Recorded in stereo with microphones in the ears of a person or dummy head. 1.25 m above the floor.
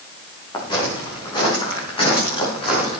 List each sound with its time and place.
0.5 s footsteps: 25° left (ahead or behind), 10 m; by 3.0 s 35° left (ahead or behind), 10.5 m